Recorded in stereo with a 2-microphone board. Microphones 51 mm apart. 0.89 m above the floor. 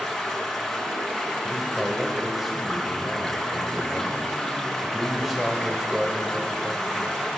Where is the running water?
5° left (ahead or behind), 5.5 m.